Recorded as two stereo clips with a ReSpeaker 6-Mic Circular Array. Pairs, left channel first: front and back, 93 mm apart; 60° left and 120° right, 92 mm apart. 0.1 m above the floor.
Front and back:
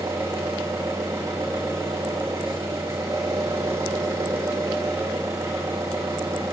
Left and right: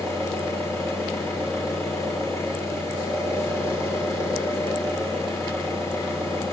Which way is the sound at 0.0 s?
120° left.